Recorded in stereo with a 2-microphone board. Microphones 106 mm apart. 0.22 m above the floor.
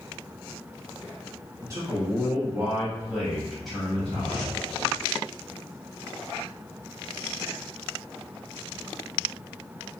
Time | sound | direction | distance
1.6 | a man speaking | 30° right (ahead or behind) | 1.4 m